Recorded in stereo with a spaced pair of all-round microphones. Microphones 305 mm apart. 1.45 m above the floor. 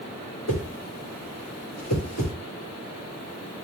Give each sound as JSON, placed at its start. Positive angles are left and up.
{"t": 0.5, "sound": "a whoosh", "side_deg": 55, "distance_m": 1.6}